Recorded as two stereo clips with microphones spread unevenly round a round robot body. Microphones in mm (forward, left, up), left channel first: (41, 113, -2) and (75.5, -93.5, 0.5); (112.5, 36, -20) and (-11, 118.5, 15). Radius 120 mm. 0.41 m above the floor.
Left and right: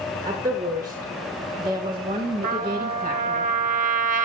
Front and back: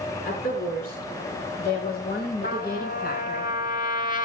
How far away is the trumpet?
About 2.5 m.